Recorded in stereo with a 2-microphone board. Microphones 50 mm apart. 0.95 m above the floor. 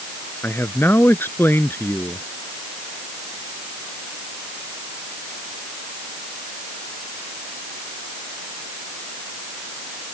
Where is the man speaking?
45° left (ahead or behind).